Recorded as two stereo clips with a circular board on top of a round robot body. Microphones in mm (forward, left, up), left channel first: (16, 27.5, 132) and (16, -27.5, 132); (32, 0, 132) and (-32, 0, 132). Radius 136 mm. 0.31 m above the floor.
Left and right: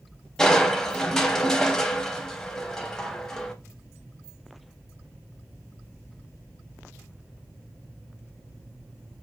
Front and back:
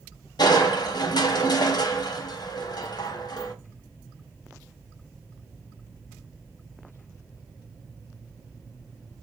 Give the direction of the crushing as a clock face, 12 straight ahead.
12 o'clock.